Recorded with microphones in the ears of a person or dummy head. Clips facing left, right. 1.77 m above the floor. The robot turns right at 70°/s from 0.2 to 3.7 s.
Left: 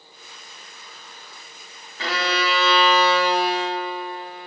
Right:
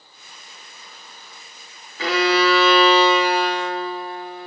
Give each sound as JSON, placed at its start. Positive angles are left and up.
{"t": 2.0, "sound": "a violin", "azimuth_deg": -100, "distance_m": 1.3}